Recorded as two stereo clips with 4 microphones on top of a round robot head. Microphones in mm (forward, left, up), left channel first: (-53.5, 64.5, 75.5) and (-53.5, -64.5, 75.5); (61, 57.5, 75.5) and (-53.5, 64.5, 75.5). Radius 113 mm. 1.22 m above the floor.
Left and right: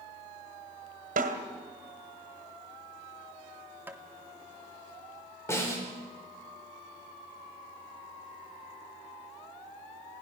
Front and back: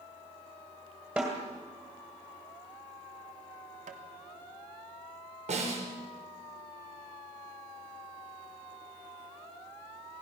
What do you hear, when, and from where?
1.2 s a snare drum: 100° right, 2.0 m
3.9 s tapping: 165° right, 1.5 m
5.5 s a snare drum: 160° left, 4 m